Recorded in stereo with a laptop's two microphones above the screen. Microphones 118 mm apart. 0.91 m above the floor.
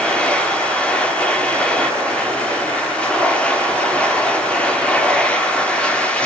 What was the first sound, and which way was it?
A machine running, 10° left (ahead or behind).